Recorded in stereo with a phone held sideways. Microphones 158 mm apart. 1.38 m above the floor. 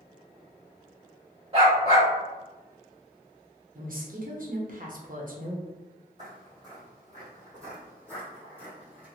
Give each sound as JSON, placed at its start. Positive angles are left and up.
{"t": 1.5, "sound": "a dog barking", "side_deg": -35, "distance_m": 1.4}
{"t": 3.8, "sound": "a woman speaking", "side_deg": -60, "distance_m": 0.9}
{"t": 6.2, "sound": "footsteps", "side_deg": -30, "distance_m": 1.6}